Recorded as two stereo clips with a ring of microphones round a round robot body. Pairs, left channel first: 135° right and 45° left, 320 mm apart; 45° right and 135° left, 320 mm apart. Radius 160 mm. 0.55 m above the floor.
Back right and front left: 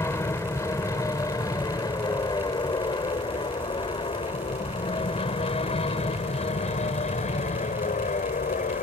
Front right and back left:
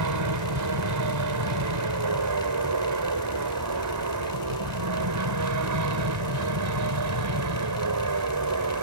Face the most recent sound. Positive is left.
turn(degrees=160)